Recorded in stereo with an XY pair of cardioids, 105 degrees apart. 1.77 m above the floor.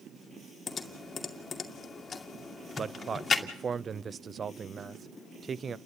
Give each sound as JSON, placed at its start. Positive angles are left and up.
{"t": 0.7, "sound": "typing on a keyboard", "azimuth_deg": 35, "distance_m": 2.5}
{"t": 2.8, "sound": "a man speaking", "azimuth_deg": -40, "distance_m": 0.7}